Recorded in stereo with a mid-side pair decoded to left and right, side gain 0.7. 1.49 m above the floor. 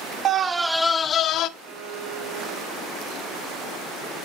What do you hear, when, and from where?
0.2 s a scream: 40° right, 0.7 m; by 1.5 s 55° left, 1.0 m
1.6 s a violin: 50° right, 3.5 m